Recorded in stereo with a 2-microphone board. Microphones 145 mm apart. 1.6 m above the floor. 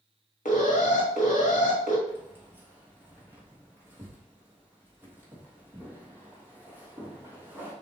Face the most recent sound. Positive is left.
turn(degrees=-15)  # may be behind; listen again after turning